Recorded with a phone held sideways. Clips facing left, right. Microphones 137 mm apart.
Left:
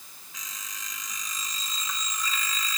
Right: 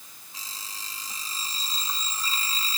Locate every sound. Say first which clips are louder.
0.3 s an alarm clock: right 1 dB; 30° right (ahead or behind)